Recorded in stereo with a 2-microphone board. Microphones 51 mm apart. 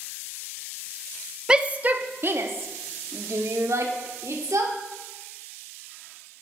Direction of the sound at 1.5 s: 15° right (ahead or behind).